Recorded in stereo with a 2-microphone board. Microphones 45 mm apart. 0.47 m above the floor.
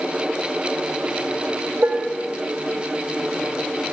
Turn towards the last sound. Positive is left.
turn(degrees=-50)  # may be behind; listen again after turning